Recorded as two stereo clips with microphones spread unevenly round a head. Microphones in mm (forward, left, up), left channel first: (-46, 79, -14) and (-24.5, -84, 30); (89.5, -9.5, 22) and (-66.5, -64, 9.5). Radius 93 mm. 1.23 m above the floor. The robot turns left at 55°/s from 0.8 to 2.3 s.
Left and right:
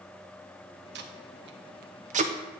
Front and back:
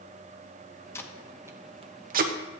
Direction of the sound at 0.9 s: 55° right.